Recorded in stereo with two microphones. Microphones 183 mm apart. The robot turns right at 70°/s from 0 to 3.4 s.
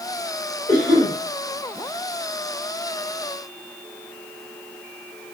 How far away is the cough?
About 3.5 m.